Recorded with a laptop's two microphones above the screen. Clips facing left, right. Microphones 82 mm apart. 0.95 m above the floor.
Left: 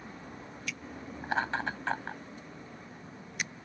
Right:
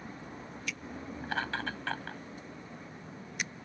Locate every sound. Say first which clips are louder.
1.2 s laughter: left 4 dB; 20° left (ahead or behind)